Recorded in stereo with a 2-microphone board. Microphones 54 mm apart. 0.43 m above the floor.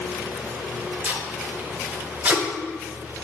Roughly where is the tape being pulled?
Right.